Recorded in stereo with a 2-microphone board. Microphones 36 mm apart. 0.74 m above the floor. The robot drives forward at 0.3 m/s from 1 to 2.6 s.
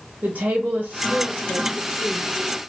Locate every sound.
0.2 s a woman speaking: 55° right (ahead or behind), 0.8 m; by 2.3 s 50° right (ahead or behind), 0.8 m